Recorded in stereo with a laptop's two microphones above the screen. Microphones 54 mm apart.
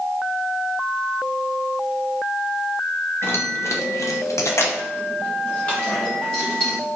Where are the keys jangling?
50° left (ahead or behind), 0.9 m; by 6.8 s 10° left (ahead or behind), 1.9 m.